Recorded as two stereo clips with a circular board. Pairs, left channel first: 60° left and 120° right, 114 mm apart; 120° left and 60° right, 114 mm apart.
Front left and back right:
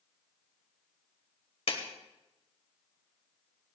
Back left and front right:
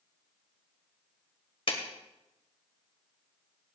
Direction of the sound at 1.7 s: 85° left.